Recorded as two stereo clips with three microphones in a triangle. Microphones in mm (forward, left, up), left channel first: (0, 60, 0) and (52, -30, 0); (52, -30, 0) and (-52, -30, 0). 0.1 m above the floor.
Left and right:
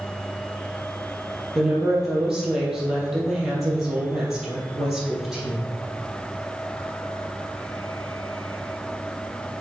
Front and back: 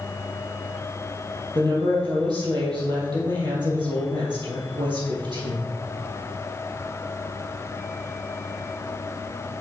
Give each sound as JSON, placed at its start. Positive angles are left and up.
{"t": 1.6, "sound": "a woman speaking", "azimuth_deg": -145, "distance_m": 3.5}